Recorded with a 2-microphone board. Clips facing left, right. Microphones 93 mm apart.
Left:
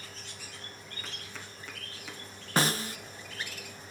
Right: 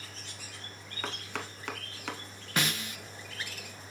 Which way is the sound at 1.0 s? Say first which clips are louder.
Right 10 dB; 65° right (ahead or behind).